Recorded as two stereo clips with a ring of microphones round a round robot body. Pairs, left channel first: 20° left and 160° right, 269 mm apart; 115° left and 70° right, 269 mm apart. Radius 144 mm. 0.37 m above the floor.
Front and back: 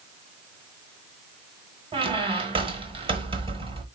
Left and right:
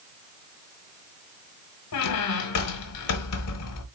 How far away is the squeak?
About 1.1 m.